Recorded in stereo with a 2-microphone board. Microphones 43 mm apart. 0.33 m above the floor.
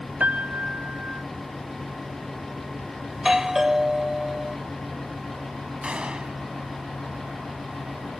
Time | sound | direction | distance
0.2 | a piano | 40° right (ahead or behind) | ?
3.1 | a doorbell | 10° right (ahead or behind) | ?
5.8 | a gunshot | 25° right (ahead or behind) | ?